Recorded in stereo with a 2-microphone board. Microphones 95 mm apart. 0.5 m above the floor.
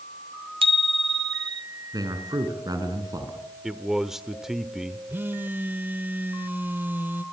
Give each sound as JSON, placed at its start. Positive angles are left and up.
{"t": 0.6, "sound": "a bicycle bell", "side_deg": -70, "distance_m": 2.0}
{"t": 1.9, "sound": "a man speaking", "side_deg": -45, "distance_m": 6.0}
{"t": 3.6, "sound": "a man speaking", "side_deg": -5, "distance_m": 1.3}
{"t": 5.1, "sound": "a phone buzzing", "side_deg": -20, "distance_m": 1.1}